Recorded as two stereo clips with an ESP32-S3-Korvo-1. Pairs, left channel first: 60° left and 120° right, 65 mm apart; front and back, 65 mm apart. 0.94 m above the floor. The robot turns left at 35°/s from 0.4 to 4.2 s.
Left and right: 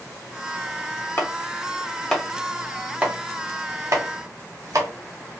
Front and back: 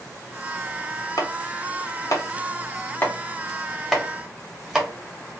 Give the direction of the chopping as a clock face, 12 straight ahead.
12 o'clock.